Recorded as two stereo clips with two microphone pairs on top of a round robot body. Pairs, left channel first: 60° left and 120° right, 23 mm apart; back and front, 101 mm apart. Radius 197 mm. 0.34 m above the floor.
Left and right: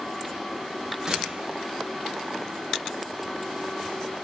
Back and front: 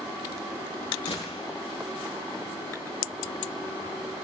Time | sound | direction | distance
1.1 | a gunshot | 175° left | 8.5 m